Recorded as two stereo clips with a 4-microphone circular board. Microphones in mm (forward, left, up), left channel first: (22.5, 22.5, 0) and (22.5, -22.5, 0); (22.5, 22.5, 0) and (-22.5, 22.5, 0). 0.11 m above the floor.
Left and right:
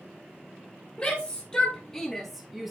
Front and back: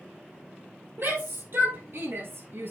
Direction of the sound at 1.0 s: 155° left.